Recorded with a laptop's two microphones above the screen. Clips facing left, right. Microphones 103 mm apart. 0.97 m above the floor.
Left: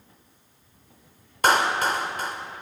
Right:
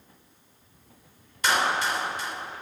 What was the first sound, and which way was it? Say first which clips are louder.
A clap: left 4 dB; 50° left (ahead or behind).